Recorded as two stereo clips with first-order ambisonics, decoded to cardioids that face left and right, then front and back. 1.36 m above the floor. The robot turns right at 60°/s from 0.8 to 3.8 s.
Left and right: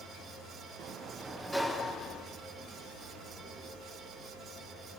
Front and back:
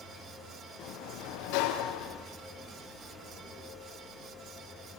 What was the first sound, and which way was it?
A sliding door, 45° right.